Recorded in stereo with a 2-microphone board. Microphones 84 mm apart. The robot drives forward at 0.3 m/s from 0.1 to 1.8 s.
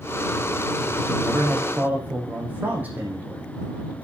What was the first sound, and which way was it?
A man speaking, 20° right (ahead or behind).